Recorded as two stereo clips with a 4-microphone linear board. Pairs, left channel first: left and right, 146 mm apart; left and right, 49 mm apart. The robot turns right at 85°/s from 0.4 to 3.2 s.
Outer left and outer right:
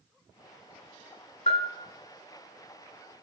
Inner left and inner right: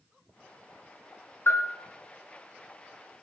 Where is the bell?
55° left (ahead or behind), 0.5 m; by 1.7 s 35° left (ahead or behind), 0.5 m.